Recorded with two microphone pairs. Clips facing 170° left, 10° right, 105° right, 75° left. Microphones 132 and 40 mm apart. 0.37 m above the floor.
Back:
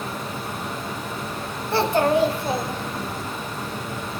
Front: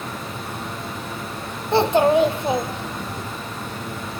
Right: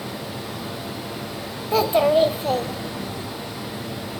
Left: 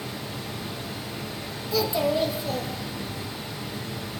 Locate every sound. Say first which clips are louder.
0.0 s running water: back 1 dB, right 3 dB; 100° right, 2.5 m
1.7 s a child speaking: front 3 dB, right 7 dB; 70° right, 0.6 m